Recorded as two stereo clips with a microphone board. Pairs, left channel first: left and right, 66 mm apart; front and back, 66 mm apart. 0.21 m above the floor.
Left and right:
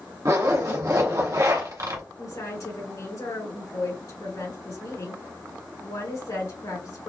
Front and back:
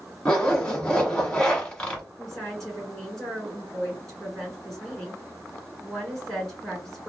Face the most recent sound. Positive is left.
turn(degrees=85)